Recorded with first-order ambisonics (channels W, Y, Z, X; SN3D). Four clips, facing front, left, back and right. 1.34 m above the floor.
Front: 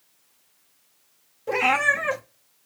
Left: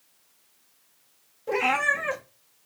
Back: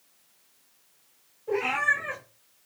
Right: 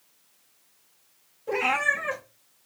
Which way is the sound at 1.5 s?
15° left.